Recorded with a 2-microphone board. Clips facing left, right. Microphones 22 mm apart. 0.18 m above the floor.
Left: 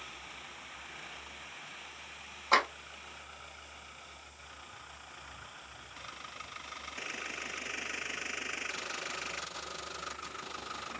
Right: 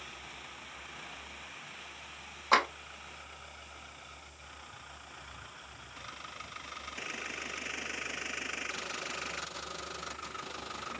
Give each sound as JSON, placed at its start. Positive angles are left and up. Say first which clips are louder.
{"t": 2.5, "sound": "a clap", "louder": "right 1 dB", "side_deg": -20, "distance_m": 1.8}